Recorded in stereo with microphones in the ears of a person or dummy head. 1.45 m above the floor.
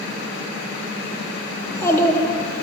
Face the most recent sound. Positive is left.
turn(degrees=20)  # may be behind; listen again after turning